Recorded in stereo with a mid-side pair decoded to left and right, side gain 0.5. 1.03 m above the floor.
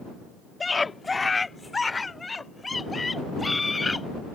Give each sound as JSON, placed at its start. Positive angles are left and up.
{"t": 0.6, "sound": "a scream", "azimuth_deg": 25}